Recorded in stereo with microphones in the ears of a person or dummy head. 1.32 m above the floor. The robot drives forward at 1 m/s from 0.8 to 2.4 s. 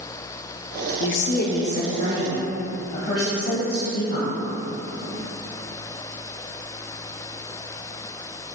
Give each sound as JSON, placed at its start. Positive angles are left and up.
{"t": 1.0, "sound": "a woman speaking", "side_deg": 55, "distance_m": 0.7}